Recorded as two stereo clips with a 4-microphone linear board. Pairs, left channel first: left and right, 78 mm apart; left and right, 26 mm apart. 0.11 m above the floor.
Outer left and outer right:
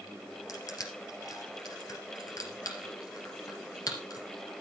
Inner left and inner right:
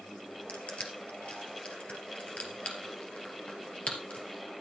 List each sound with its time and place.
0.5 s crushing: 50° left (ahead or behind), 3 m